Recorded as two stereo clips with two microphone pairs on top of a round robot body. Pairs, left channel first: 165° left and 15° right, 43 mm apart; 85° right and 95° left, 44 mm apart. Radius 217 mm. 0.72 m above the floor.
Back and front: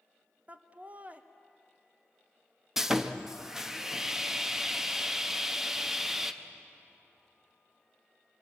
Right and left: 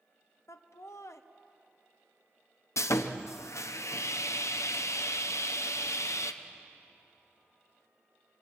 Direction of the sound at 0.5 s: 65° right.